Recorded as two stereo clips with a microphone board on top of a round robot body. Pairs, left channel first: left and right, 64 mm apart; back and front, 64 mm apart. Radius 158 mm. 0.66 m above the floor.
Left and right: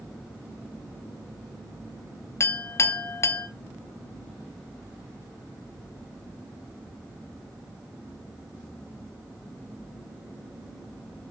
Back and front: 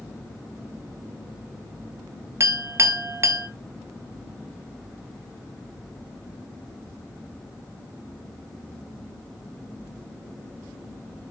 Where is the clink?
45° left, 0.9 m.